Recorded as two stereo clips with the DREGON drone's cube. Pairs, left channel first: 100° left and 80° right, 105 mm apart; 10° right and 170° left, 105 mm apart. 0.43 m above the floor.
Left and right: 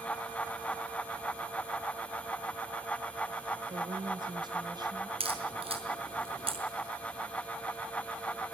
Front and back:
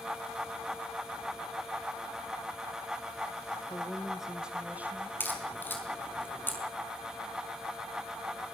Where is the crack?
80° right, 5 m.